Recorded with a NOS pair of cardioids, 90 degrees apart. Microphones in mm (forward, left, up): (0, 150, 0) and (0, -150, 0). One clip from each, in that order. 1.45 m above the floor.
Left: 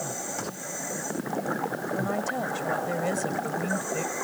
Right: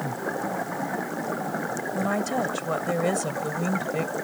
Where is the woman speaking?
30° right.